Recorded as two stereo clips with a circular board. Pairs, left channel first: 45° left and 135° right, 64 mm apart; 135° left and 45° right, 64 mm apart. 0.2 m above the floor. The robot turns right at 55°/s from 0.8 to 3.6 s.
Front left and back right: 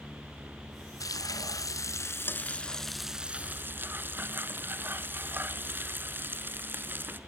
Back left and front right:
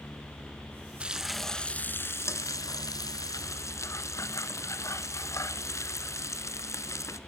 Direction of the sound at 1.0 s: 30° left.